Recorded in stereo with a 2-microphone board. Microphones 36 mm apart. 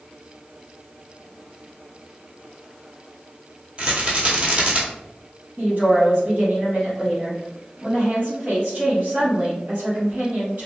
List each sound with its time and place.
3.8 s a rattle: 40° right (ahead or behind), 1.1 m
5.6 s a woman speaking: 50° right (ahead or behind), 1.6 m